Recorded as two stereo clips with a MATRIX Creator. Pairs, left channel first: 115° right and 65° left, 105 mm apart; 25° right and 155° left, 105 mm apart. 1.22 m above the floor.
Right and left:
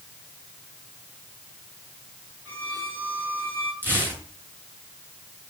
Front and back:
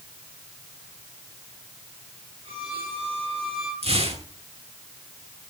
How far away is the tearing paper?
About 9 m.